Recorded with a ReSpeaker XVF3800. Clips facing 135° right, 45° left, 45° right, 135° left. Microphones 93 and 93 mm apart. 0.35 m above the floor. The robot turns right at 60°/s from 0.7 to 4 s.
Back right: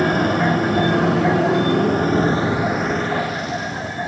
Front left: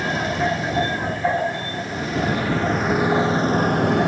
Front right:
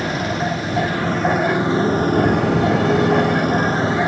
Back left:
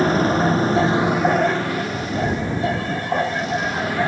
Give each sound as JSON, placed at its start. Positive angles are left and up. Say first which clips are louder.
{"t": 0.0, "sound": "a motorcycle", "louder": "back right 5 dB, back left 4 dB", "azimuth_deg": -170}